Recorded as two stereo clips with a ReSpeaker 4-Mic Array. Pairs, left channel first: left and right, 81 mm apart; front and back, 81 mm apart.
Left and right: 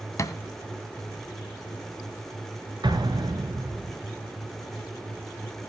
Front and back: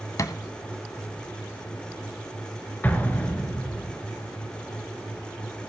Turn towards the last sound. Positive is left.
turn(degrees=-70)